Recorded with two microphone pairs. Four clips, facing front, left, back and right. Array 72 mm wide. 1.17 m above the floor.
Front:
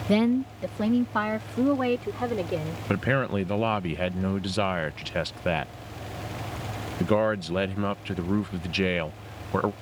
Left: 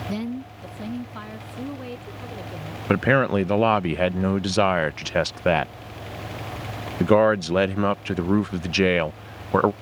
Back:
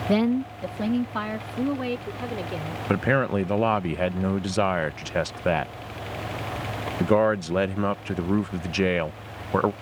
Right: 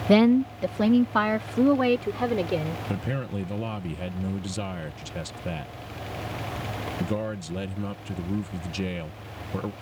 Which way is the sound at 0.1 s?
105° right.